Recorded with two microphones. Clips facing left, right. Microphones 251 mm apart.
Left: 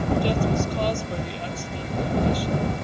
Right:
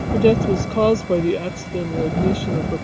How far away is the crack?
I don't hear a crack.